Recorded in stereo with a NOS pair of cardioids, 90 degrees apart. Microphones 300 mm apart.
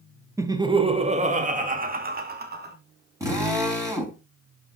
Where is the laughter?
10° right, 1.3 m; by 2.8 s 35° right, 3 m.